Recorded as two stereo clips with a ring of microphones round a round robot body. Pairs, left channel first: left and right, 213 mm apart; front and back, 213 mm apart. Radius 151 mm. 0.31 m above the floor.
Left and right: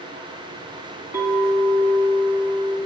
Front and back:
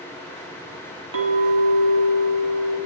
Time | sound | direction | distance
1.1 | a clink | 170° right | 1.3 m